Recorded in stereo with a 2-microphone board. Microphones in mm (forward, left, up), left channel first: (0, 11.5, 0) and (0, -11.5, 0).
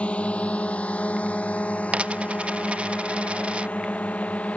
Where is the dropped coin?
60° right (ahead or behind).